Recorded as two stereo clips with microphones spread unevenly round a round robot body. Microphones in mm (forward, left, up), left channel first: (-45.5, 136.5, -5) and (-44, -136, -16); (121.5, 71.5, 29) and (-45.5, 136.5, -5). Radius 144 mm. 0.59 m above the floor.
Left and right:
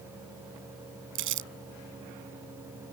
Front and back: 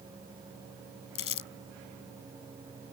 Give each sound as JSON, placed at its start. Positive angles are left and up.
{"t": 1.1, "sound": "crumpling", "azimuth_deg": -40}